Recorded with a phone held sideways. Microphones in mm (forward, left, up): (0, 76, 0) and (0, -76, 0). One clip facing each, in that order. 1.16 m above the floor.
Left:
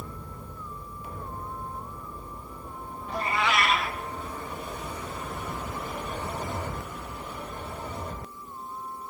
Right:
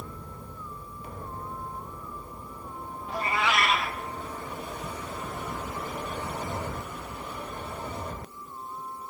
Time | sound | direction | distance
3.1 | a cat meowing | centre (ahead or behind) | 1.1 m